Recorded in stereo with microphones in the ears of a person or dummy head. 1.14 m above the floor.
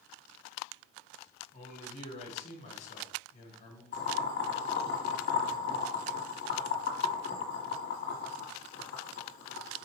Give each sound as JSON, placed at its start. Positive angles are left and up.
{"t": 1.5, "sound": "a man speaking", "side_deg": 35, "distance_m": 1.3}
{"t": 3.9, "sound": "boiling", "side_deg": 50, "distance_m": 1.4}